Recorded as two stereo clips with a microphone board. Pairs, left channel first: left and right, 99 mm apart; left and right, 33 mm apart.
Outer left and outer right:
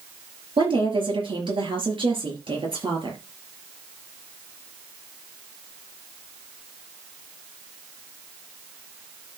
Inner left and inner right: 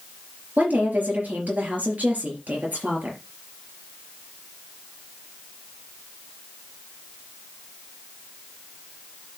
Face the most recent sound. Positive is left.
turn(degrees=-60)  # may be behind; listen again after turning